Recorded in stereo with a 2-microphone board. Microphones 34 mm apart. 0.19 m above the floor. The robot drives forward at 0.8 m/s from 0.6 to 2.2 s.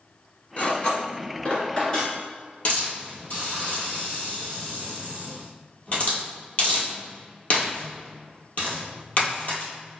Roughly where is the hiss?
Left.